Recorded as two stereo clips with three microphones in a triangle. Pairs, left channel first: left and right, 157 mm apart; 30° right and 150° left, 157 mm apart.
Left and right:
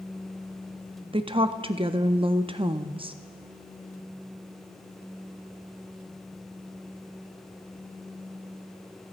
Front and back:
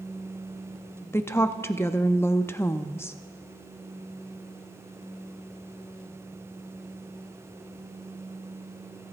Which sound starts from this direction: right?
A woman speaking, at 1.1 s.